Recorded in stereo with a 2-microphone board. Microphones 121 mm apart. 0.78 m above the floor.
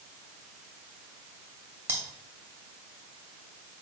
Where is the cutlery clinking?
15° right (ahead or behind), 1.9 m.